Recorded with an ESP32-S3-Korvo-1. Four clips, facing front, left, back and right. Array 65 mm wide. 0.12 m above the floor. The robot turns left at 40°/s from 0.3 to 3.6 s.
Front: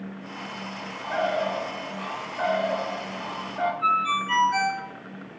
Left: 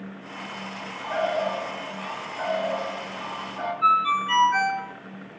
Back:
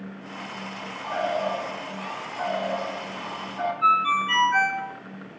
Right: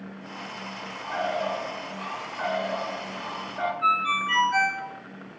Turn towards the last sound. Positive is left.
turn(degrees=160)